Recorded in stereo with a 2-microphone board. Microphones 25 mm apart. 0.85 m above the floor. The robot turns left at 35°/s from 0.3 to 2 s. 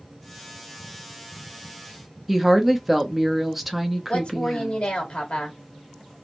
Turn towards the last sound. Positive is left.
turn(degrees=55)  # may be behind; listen again after turning